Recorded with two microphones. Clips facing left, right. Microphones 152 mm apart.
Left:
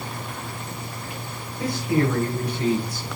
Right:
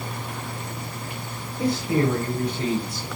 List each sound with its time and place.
1.6 s a man speaking: 25° right (ahead or behind), 1.8 m